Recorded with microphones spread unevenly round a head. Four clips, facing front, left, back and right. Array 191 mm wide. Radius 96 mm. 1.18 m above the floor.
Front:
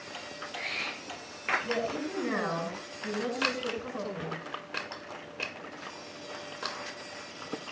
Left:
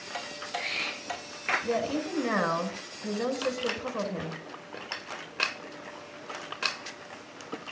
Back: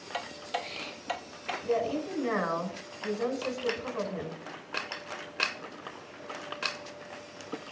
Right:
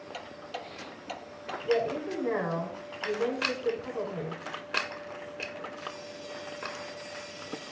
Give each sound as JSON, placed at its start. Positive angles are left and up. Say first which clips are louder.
{"t": 0.1, "sound": "ticking", "louder": "left 5 dB, back 7 dB", "azimuth_deg": 175, "distance_m": 1.1}
{"t": 1.6, "sound": "a woman speaking", "louder": "right 4 dB, back 3 dB", "azimuth_deg": 95, "distance_m": 6.0}